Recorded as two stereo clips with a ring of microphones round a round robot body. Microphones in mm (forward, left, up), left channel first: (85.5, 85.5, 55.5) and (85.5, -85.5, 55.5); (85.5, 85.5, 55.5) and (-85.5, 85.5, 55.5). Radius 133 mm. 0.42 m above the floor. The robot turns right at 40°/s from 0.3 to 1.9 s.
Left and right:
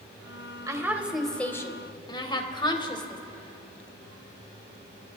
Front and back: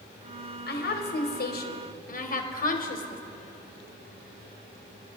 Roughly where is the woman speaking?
Ahead.